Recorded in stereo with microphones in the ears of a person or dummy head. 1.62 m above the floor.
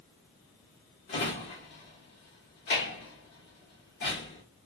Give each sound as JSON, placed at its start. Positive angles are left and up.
{"t": 1.1, "sound": "a drawer", "side_deg": 30, "distance_m": 1.1}